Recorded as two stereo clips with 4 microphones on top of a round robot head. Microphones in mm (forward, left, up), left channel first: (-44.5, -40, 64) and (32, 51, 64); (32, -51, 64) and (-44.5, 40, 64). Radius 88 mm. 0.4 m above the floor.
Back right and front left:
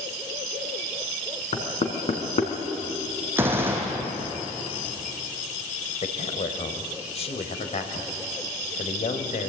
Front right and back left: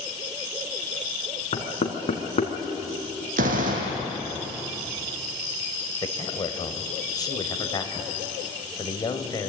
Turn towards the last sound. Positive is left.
turn(degrees=-105)